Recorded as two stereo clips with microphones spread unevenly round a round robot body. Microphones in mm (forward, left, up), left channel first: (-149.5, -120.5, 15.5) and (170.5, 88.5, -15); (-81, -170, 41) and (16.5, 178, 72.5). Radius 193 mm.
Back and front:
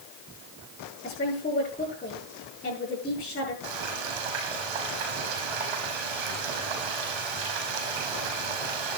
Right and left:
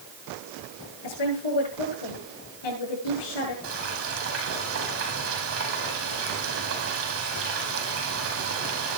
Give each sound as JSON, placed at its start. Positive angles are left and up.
{"t": 1.0, "sound": "a woman speaking", "azimuth_deg": -75, "distance_m": 10.0}
{"t": 3.6, "sound": "frying", "azimuth_deg": 20, "distance_m": 4.5}